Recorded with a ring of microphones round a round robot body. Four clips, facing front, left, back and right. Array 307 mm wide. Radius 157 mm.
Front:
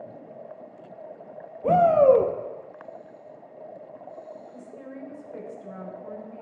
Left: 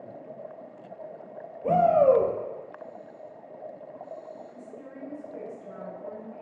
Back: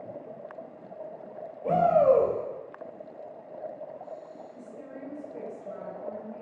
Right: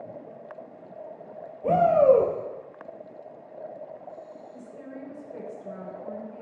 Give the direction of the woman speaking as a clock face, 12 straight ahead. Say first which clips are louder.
Right 2 dB, front 2 dB; 12 o'clock.